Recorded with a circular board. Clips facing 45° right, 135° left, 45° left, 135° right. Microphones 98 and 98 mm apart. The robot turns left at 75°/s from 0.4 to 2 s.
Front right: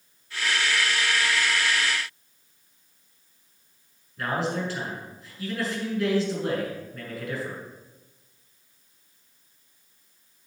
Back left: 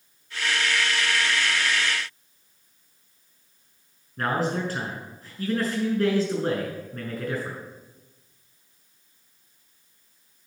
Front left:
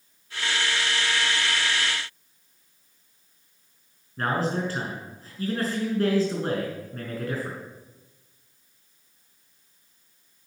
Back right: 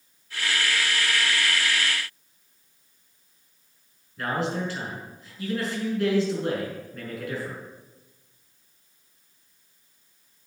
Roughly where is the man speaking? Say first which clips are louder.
Back left 2 dB, front left 2 dB; left.